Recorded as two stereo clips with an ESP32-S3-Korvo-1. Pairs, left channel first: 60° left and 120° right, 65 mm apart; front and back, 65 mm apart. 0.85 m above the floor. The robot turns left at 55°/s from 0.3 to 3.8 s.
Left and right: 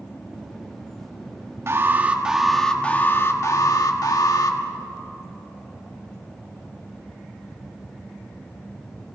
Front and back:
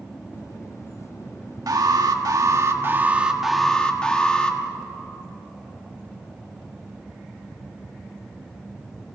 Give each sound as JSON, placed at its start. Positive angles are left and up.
{"t": 1.7, "sound": "an alarm", "azimuth_deg": -165, "distance_m": 1.5}